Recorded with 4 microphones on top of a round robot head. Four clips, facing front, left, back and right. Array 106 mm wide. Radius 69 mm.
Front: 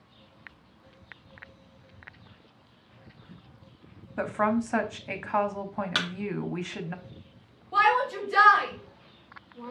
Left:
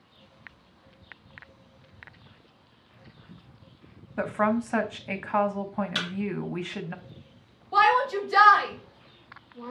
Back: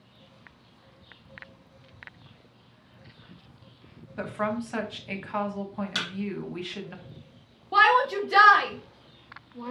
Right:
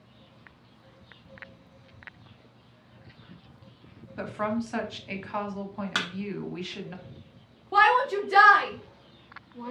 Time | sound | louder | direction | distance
4.2 | a woman speaking | left 5 dB, front 4 dB | 50° left | 0.9 m
6.0 | a thud | right 2 dB, front 5 dB | 60° right | 1.0 m
7.7 | a shout | even, back 3 dB | 140° right | 1.3 m